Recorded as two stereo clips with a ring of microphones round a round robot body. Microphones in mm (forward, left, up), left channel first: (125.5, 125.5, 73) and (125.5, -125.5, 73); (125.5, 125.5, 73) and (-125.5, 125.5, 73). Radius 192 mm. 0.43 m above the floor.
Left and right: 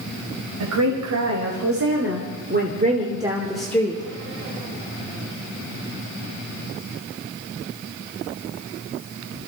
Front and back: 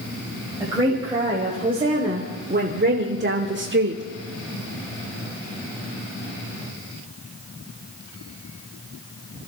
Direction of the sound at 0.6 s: 100° right.